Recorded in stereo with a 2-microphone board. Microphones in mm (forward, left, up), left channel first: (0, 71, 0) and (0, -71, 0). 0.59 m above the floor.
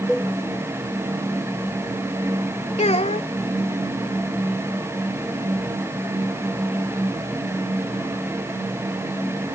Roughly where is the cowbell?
Centre.